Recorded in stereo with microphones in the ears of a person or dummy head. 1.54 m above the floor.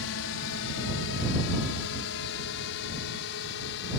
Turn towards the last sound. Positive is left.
turn(degrees=65)  # may be behind; listen again after turning